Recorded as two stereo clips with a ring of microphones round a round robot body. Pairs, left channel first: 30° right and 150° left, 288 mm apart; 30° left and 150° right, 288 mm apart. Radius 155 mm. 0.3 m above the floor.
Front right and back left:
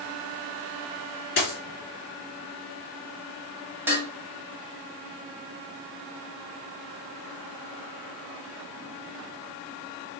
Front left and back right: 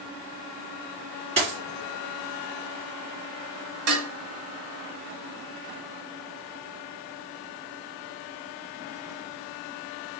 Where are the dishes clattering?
125° right, 1.1 m.